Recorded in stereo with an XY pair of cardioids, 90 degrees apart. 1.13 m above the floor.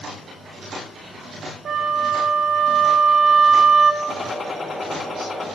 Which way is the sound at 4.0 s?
35° left.